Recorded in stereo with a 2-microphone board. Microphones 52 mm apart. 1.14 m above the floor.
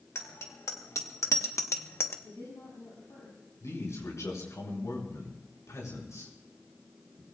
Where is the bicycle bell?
65° left (ahead or behind), 3 m; by 2.1 s 50° left (ahead or behind), 1.0 m.